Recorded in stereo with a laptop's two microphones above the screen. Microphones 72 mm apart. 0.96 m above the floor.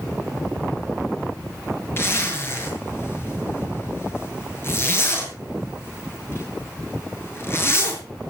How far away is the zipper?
About 7.5 m.